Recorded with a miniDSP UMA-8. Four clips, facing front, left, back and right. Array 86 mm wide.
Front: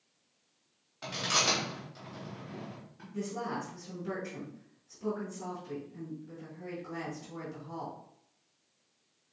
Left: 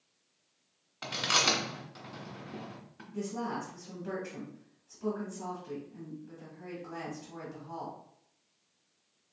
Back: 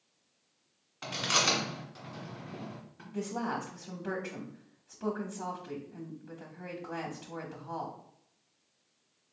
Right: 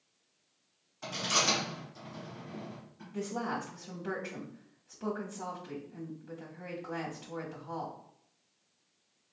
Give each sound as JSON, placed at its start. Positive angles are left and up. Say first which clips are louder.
{"t": 1.0, "sound": "chewing", "louder": "left 1 dB, back 1 dB", "azimuth_deg": 105, "distance_m": 1.6}
{"t": 3.1, "sound": "a woman speaking", "louder": "even, back 2 dB", "azimuth_deg": -140, "distance_m": 1.0}